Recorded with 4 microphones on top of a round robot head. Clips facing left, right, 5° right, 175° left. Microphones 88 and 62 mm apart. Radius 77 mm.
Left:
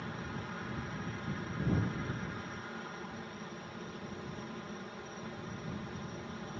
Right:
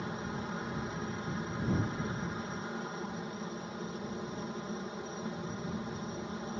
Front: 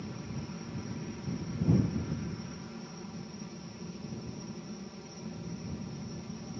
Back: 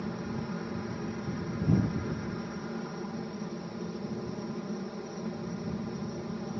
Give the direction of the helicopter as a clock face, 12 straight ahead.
5 o'clock.